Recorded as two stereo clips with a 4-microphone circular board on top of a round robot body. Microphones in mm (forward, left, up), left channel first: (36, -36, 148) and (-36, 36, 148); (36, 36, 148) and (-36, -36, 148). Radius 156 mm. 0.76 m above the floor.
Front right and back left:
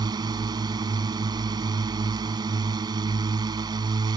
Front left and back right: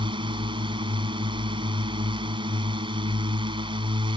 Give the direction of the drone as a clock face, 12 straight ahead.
6 o'clock.